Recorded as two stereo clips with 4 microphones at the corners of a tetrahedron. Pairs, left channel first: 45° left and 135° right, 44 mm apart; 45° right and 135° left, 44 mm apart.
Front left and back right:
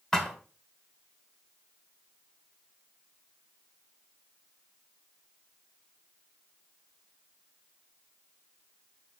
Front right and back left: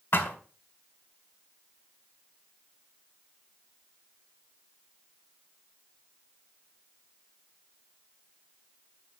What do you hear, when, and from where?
0.1 s a thud: 30° right, 1.8 m